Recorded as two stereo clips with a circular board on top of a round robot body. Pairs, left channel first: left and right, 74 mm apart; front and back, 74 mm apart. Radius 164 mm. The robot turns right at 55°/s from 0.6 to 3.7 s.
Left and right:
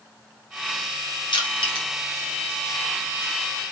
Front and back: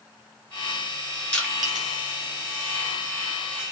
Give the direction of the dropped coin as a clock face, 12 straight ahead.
I don't hear a dropped coin.